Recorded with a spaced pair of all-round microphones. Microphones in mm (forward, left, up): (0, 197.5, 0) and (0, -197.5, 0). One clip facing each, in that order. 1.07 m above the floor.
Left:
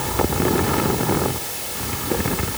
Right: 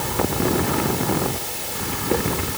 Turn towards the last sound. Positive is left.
No sound to turn to.